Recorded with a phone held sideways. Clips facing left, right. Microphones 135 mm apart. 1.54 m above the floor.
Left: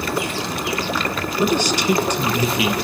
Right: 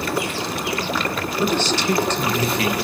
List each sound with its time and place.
1.4 s a man speaking: 15° left (ahead or behind), 1.6 m